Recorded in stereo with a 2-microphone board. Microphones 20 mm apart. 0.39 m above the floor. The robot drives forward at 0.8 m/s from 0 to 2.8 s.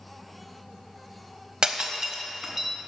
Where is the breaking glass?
40° right (ahead or behind), 0.6 m; by 2.7 s 15° right (ahead or behind), 1.3 m.